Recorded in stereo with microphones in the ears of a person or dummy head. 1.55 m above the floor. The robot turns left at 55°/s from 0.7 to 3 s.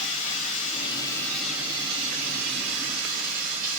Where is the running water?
40° left, 2.5 m; by 3.8 s 85° right, 2.5 m.